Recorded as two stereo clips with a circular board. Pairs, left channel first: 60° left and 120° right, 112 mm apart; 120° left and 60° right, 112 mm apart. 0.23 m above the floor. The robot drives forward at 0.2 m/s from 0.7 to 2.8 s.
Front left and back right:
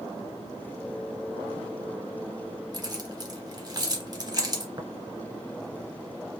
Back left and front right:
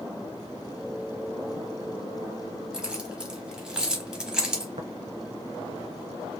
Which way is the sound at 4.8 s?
75° right.